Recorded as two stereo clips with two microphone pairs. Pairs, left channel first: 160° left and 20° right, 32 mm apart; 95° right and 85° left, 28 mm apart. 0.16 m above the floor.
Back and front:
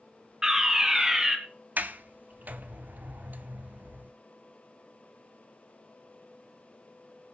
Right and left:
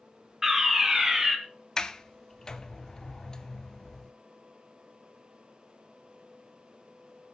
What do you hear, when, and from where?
0.4 s a fire alarm: 30° left, 2.5 m
1.8 s a sliding door: 30° right, 0.9 m